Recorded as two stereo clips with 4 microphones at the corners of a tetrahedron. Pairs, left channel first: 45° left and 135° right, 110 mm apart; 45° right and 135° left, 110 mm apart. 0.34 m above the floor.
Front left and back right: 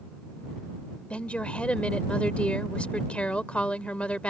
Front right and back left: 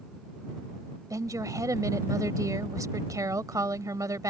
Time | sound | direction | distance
1.1 | a woman speaking | 115° left | ?